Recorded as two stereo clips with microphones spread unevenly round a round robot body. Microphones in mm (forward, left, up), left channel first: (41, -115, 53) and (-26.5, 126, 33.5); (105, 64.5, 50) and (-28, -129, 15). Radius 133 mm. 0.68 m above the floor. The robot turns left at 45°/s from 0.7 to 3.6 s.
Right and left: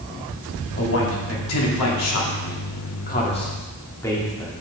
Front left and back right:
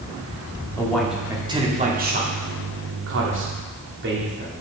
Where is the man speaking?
25° right, 2.0 m; by 4.5 s 155° right, 2.0 m.